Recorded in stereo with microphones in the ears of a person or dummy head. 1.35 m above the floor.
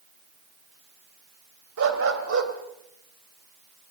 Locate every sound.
1.8 s a dog barking: 70° right (ahead or behind), 2.5 m